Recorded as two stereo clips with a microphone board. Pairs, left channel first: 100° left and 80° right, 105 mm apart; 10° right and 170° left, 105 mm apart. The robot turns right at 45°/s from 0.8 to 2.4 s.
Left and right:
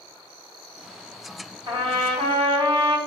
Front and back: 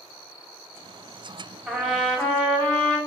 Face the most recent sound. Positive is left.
turn(degrees=-75)